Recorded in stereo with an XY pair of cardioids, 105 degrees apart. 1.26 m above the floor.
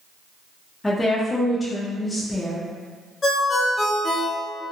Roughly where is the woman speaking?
Ahead.